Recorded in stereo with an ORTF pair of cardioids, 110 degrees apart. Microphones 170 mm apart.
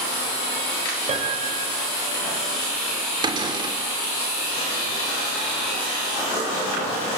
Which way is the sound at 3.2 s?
30° right.